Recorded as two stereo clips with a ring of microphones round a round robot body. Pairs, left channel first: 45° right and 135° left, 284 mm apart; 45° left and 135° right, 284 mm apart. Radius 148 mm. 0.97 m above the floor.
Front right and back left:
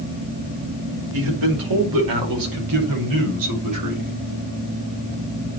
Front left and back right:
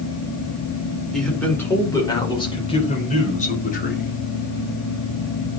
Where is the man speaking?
135° left, 4.5 m; by 4.2 s 105° left, 5.5 m.